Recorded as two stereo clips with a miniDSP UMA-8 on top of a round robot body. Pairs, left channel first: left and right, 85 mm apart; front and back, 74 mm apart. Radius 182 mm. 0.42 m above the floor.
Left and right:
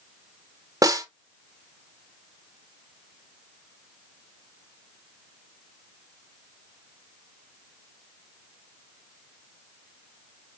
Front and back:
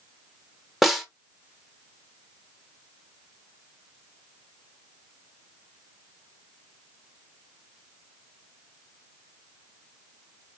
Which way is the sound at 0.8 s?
90° right.